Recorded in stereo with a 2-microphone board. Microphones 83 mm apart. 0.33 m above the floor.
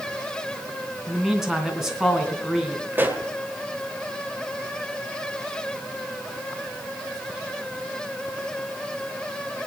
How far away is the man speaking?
About 3 m.